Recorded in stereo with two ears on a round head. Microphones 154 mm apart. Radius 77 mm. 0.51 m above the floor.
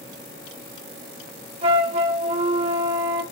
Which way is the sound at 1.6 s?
40° right (ahead or behind).